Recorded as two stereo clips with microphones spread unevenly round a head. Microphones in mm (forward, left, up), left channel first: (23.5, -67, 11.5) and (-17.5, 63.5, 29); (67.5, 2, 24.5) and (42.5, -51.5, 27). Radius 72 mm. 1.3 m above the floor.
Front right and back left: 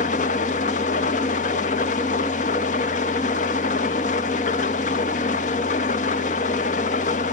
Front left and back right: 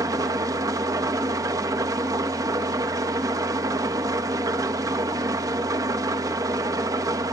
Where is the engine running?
110° right, 0.8 m.